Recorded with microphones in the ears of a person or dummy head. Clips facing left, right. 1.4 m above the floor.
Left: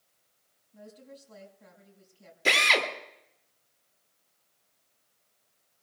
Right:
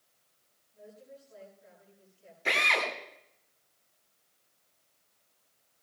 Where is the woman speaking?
85° left, 5 m.